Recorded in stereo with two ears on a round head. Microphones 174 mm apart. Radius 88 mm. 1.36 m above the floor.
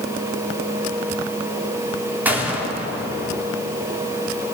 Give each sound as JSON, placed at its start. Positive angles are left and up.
{"t": 2.2, "sound": "a gunshot", "side_deg": -10, "distance_m": 4.0}